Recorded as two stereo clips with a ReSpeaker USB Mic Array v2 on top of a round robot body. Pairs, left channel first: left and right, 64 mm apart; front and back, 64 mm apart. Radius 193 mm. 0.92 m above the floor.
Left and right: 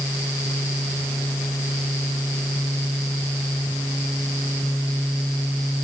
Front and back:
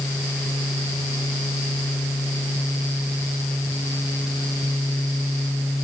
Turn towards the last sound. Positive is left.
No sound to turn to.